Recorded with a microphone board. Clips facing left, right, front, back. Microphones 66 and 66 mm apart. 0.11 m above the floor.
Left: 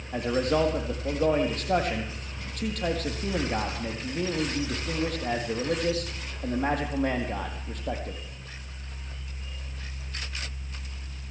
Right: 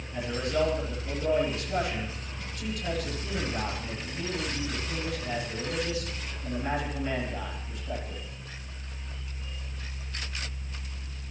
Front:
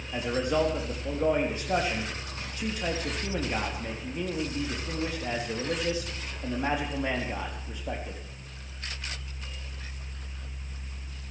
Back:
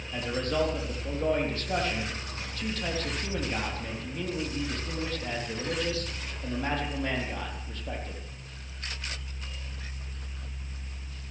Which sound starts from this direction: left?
A man speaking, at 0.1 s.